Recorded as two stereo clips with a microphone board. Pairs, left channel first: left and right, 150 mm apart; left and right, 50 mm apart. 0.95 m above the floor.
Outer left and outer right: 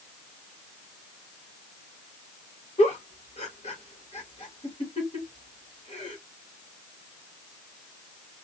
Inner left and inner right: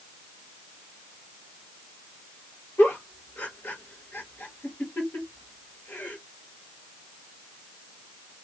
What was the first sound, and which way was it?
A giggle, 50° left (ahead or behind).